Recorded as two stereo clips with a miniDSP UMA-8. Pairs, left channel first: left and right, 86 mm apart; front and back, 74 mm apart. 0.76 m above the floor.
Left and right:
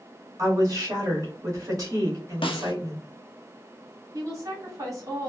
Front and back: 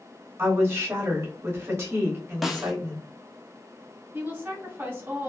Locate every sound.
0.4 s a woman speaking: 130° right, 1.7 m
2.4 s a snare drum: 95° left, 0.5 m
4.1 s a woman speaking: 125° right, 1.7 m